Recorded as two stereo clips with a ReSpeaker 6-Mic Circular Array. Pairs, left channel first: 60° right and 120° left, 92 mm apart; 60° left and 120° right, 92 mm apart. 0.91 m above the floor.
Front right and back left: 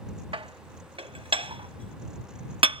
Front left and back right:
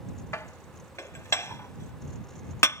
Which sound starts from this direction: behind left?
Dishes clattering, at 0.3 s.